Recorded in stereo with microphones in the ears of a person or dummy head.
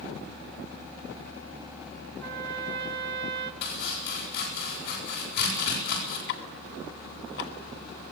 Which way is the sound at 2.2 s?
55° right (ahead or behind).